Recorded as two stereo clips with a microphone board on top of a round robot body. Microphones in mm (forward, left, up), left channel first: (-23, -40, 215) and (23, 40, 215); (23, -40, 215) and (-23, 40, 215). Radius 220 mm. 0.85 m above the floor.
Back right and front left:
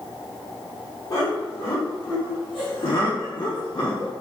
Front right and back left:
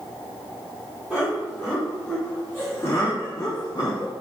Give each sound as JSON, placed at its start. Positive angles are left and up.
{"t": 1.1, "sound": "laughter", "azimuth_deg": -160, "distance_m": 1.6}